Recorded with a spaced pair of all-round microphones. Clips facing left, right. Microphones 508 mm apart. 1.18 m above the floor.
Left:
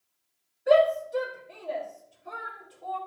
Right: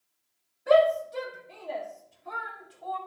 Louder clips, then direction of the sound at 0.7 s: Left 1 dB; 25° right (ahead or behind).